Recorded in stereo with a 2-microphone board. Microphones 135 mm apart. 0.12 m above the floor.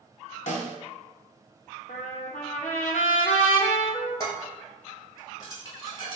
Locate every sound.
0.5 s a snare drum: 60° left (ahead or behind), 0.6 m
1.9 s a trumpet: 70° left (ahead or behind), 0.6 m
4.2 s dishes clattering: 30° left (ahead or behind), 1.5 m